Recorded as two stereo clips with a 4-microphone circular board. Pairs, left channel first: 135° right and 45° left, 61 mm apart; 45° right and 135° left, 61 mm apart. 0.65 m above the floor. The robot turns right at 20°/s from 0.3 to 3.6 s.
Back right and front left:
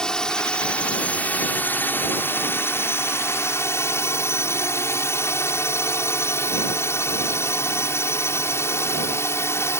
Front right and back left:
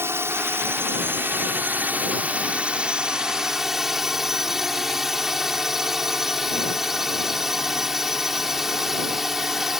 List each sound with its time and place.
0.0 s a drone: 150° left; by 9.8 s 145° right